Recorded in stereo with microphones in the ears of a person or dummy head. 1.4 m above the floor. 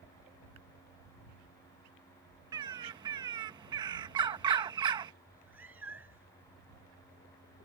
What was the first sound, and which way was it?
A bird, 25° right (ahead or behind).